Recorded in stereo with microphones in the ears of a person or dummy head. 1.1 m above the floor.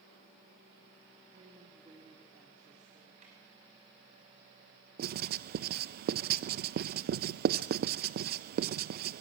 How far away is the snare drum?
About 7 m.